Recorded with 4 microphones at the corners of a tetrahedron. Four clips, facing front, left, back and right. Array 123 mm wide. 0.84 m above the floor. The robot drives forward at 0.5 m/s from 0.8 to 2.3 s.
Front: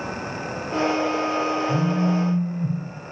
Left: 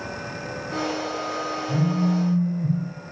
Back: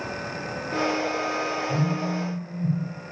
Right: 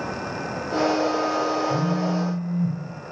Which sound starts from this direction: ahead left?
A phone buzzing, at 1.7 s.